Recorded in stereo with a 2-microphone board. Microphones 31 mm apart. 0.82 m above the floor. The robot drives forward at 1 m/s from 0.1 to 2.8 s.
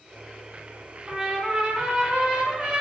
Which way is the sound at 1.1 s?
30° right (ahead or behind).